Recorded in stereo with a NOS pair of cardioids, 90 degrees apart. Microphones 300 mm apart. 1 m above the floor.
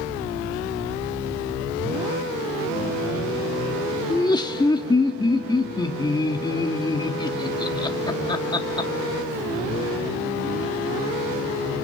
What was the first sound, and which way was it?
Laughter, 15° left.